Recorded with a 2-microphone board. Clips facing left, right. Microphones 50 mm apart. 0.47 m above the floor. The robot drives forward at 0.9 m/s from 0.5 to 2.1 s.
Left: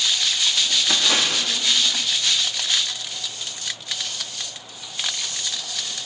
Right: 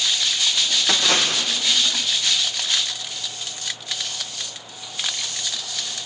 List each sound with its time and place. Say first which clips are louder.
0.9 s a splash: right 2 dB; 65° right (ahead or behind), 4.5 m; by 1.5 s 60° right (ahead or behind), 5 m